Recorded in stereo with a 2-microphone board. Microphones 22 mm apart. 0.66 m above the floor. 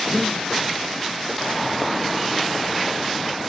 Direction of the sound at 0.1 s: 5° right (ahead or behind).